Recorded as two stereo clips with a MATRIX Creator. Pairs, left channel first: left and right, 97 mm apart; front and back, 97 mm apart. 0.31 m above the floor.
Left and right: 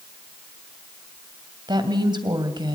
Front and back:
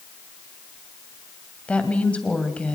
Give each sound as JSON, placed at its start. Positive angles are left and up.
{"t": 1.7, "sound": "a woman speaking", "azimuth_deg": -75, "distance_m": 2.0}